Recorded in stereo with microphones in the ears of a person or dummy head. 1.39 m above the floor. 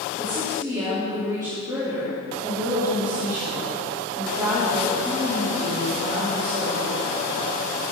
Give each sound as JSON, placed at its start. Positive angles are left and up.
{"t": 0.2, "sound": "a woman speaking", "side_deg": -15, "distance_m": 3.5}